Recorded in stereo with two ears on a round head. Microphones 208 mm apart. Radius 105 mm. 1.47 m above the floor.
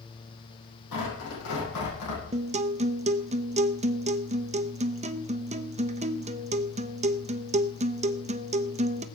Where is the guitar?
25° right (ahead or behind), 0.7 m.